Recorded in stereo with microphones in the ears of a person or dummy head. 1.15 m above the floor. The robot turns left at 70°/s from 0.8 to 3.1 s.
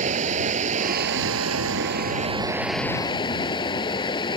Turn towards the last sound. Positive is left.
turn(degrees=155)